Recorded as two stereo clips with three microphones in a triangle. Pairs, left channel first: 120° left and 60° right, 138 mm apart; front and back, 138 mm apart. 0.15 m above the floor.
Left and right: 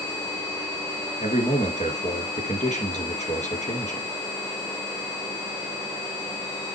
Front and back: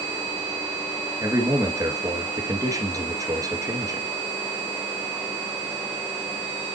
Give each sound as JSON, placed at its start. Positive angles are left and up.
{"t": 1.2, "sound": "a man speaking", "azimuth_deg": 120, "distance_m": 2.5}